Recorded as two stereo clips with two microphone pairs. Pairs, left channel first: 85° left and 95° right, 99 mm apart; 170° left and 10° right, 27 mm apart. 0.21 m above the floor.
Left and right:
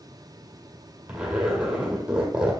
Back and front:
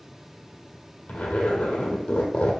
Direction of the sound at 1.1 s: 175° right.